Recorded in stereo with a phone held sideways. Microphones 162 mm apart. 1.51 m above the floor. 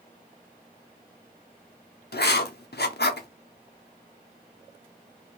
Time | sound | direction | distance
2.1 | writing | 85° left | 0.5 m